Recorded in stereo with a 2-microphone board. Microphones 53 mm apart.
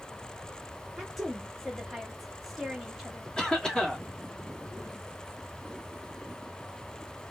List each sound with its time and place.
1.0 s a woman speaking: 5° right (ahead or behind), 0.7 m
3.4 s a cough: 15° left (ahead or behind), 1.6 m